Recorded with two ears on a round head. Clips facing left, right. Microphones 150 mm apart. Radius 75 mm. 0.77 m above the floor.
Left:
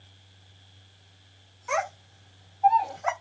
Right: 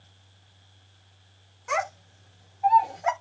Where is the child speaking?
50° right (ahead or behind), 1.5 m; by 3.1 s 20° right (ahead or behind), 1.2 m.